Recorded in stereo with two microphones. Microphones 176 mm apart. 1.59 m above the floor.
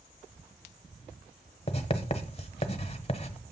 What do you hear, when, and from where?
1.7 s writing: 35° left (ahead or behind), 0.9 m